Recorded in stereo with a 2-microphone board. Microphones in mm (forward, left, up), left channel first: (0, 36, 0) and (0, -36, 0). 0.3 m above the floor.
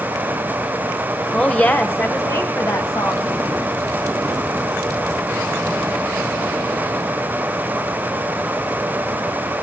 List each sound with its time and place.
1.3 s a woman speaking: 10° left (ahead or behind), 0.9 m; by 3.3 s 55° left (ahead or behind), 1.8 m